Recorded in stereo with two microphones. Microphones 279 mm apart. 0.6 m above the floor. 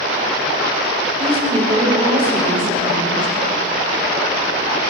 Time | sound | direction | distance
1.2 | a woman speaking | 20° right (ahead or behind) | 2 m